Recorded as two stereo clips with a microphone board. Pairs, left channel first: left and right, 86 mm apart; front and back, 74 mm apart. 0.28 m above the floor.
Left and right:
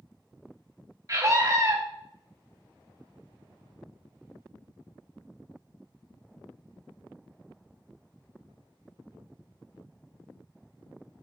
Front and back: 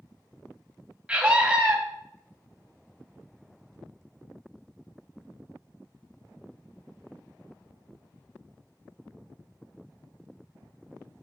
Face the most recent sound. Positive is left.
turn(degrees=-110)